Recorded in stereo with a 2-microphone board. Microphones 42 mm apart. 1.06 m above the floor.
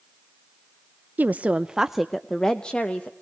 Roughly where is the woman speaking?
Right.